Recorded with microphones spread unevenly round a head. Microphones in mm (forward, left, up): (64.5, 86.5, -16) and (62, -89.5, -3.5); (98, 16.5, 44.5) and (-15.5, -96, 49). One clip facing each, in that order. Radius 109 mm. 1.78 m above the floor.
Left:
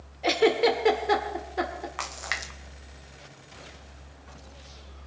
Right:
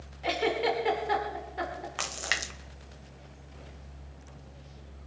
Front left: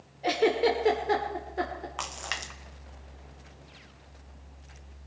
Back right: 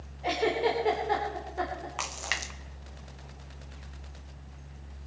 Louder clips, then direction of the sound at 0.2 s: Left 7 dB, front left 3 dB; 95° left.